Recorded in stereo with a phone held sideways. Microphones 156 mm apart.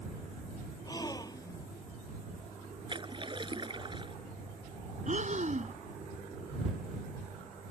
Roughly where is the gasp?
Left.